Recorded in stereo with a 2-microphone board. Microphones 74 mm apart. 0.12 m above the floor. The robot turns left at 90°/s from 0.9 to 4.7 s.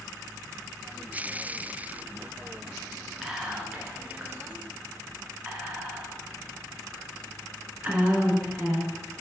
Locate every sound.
3.2 s whispering: centre (ahead or behind), 1.6 m; by 8.9 s 20° right (ahead or behind), 1.6 m